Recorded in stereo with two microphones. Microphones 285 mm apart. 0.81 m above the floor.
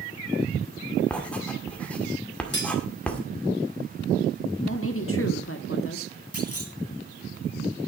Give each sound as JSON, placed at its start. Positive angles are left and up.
{"t": 1.1, "sound": "writing", "side_deg": 5, "distance_m": 1.8}
{"t": 2.5, "sound": "cutlery clinking", "side_deg": 35, "distance_m": 1.9}
{"t": 4.6, "sound": "a woman speaking", "side_deg": 50, "distance_m": 1.7}
{"t": 6.3, "sound": "a clunk", "side_deg": 55, "distance_m": 1.7}